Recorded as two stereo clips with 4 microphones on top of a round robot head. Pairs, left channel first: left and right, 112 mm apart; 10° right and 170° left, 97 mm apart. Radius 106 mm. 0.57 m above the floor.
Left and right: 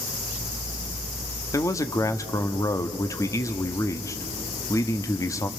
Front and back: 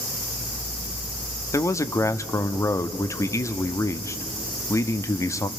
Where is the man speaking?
35° left, 0.9 m.